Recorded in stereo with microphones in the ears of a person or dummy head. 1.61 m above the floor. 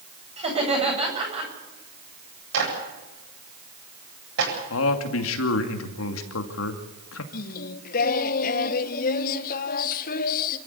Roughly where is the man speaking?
Left.